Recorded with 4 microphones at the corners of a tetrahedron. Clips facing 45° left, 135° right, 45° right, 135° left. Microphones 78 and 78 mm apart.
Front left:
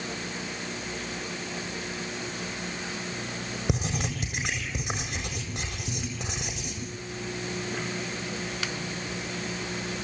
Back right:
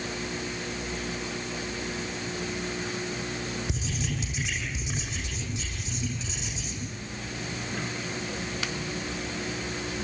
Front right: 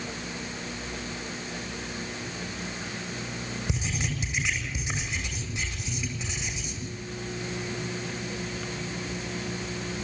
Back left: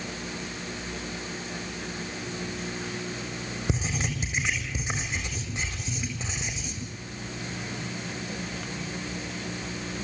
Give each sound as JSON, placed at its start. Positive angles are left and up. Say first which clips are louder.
{"t": 3.7, "sound": "writing", "louder": "front left 3 dB, back left 4 dB", "azimuth_deg": 80, "distance_m": 7.5}